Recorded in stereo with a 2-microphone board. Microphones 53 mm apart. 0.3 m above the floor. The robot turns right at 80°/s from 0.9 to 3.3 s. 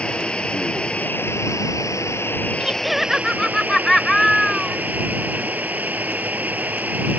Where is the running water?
20° left; by 7.2 s 145° right.